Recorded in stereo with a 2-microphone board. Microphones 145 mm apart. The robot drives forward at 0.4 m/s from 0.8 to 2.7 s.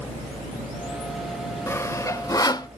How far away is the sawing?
About 0.9 m.